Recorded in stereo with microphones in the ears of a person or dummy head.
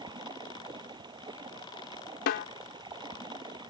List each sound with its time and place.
0.0 s running water: 15° right (ahead or behind)
2.3 s a snare drum: 65° left (ahead or behind)